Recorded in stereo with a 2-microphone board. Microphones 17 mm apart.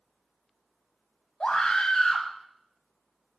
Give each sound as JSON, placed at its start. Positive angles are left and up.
{"t": 1.4, "sound": "a scream", "side_deg": 55, "distance_m": 2.0}